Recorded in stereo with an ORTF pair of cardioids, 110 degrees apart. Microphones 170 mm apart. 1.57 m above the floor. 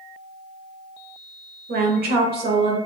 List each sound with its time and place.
1.7 s a woman speaking: 70° right, 0.9 m